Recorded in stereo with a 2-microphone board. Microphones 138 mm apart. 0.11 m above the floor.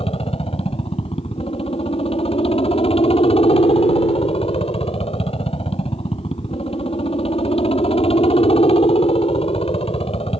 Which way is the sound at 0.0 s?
45° left (ahead or behind).